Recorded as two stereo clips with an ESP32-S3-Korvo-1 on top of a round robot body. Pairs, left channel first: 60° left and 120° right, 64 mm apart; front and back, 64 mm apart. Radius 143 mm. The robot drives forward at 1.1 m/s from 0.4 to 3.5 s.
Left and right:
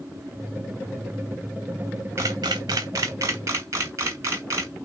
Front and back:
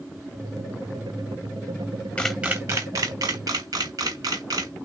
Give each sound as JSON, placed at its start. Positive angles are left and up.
{"t": 2.2, "sound": "a camera shutter", "azimuth_deg": -65, "distance_m": 0.5}